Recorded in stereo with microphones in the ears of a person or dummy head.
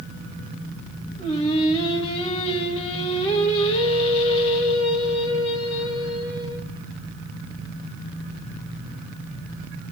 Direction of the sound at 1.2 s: 30° left (ahead or behind).